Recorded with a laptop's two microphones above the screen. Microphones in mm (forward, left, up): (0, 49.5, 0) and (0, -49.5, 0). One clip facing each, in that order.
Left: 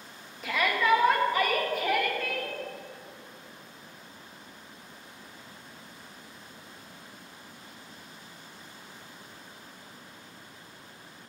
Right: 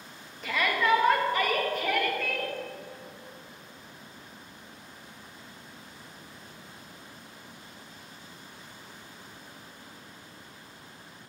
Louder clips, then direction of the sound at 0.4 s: Even; 5° left (ahead or behind).